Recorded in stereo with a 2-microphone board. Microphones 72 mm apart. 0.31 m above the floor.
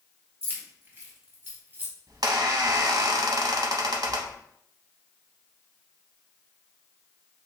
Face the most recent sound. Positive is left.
turn(degrees=-65)  # may be behind; listen again after turning